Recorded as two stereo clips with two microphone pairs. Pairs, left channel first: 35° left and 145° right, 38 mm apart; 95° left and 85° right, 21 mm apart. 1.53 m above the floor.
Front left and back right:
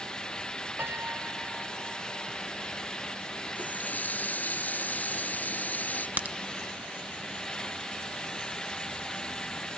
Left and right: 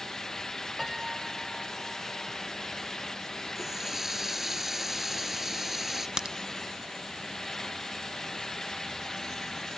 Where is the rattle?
No rattle in this recording.